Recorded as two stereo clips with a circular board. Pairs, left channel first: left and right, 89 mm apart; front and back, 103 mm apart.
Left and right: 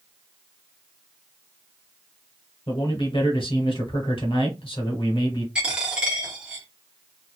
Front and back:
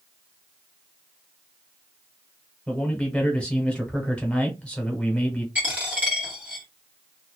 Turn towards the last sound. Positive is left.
turn(degrees=-145)